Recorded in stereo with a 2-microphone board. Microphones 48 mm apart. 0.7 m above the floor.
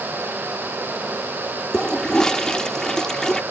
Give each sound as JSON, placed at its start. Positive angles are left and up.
{"t": 1.7, "sound": "a toilet flushing", "side_deg": 15}